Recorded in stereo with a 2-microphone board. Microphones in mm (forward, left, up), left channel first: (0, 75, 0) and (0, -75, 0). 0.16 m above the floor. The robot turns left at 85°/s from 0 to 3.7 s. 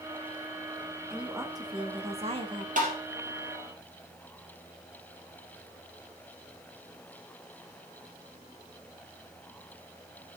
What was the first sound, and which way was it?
A woman speaking, straight ahead.